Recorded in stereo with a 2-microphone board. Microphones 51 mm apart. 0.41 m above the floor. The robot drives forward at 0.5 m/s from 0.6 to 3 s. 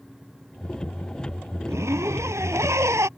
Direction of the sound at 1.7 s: 70° right (ahead or behind).